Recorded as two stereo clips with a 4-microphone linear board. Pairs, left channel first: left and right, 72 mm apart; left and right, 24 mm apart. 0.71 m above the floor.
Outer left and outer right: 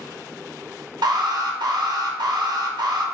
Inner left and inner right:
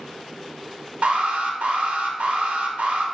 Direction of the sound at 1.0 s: 70° right (ahead or behind).